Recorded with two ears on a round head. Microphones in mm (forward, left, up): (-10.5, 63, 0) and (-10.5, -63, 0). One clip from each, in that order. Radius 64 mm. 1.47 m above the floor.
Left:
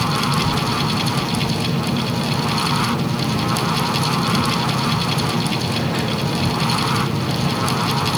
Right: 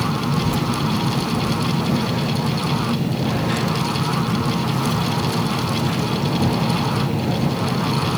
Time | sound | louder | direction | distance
0.4 | a child speaking | left 3 dB | 20° right (ahead or behind) | ?